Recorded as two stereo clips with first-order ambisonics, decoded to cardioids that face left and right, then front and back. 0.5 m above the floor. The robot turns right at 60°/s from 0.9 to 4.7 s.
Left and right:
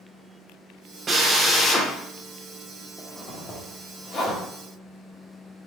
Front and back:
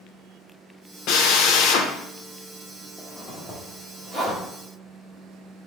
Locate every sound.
1.1 s a drill: 25° right, 0.7 m; by 1.9 s 25° left, 0.7 m
3.0 s a zipper: 45° left, 1.2 m; by 4.4 s 130° left, 1.2 m